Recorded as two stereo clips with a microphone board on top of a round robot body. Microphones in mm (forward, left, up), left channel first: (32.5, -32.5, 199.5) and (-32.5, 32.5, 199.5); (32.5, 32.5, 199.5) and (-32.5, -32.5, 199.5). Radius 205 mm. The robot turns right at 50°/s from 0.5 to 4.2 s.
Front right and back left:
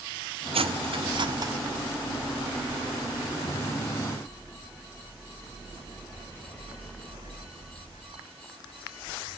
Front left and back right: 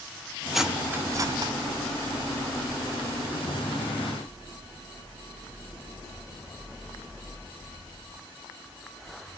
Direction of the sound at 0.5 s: 140° left.